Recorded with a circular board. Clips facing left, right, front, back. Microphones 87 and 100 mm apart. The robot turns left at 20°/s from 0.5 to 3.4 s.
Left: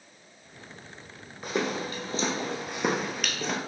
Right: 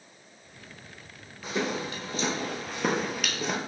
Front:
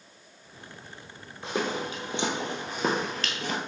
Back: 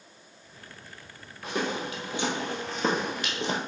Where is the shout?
No shout in this recording.